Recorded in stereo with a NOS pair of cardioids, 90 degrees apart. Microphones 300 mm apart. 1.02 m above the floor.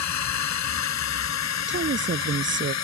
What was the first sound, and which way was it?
A drone, 65° left.